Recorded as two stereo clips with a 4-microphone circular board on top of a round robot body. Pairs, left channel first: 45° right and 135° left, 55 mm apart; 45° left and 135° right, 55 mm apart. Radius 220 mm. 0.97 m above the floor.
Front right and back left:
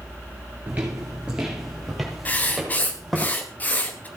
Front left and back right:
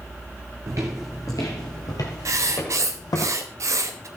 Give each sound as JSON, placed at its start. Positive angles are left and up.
{"t": 0.7, "sound": "footsteps", "azimuth_deg": -155, "distance_m": 1.0}
{"t": 2.2, "sound": "writing", "azimuth_deg": -105, "distance_m": 0.9}